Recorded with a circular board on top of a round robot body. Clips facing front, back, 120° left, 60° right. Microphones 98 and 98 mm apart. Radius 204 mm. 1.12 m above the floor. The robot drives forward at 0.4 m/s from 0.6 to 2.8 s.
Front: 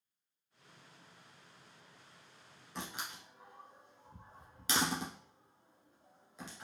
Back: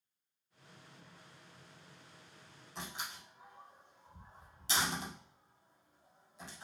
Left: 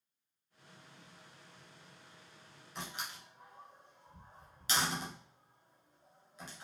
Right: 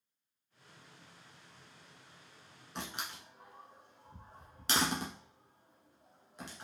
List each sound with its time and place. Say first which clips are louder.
2.8 s a door slam: front 1 dB, right 2 dB; 25° right, 1.3 m; by 6.6 s 30° right, 1.3 m